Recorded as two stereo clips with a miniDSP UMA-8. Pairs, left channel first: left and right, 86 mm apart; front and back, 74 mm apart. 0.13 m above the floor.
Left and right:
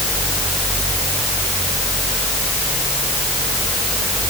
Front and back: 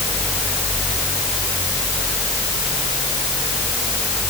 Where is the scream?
No scream in this recording.